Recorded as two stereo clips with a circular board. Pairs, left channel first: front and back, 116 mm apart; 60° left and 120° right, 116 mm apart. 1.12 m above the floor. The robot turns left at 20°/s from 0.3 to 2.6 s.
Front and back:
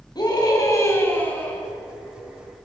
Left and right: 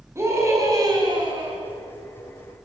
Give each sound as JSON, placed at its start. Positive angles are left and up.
{"t": 0.1, "sound": "a scream", "azimuth_deg": -55, "distance_m": 9.5}